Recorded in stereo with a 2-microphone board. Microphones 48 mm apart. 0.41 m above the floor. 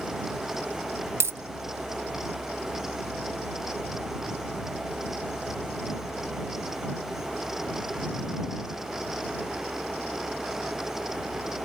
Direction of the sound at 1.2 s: 80° right.